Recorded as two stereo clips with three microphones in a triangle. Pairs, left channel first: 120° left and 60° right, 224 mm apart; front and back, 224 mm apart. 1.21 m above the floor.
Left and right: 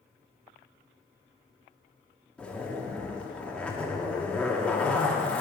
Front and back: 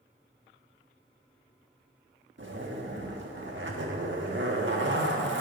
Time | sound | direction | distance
2.4 | a zipper | 155° right | 1.2 m